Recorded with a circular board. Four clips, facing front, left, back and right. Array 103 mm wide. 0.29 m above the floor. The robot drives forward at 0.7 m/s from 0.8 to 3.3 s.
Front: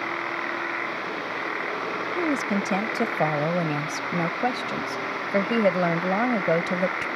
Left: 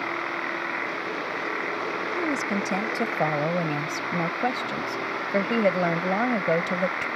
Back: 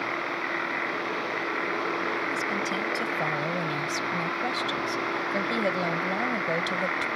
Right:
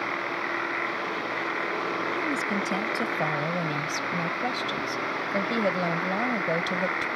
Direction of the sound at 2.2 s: 20° left.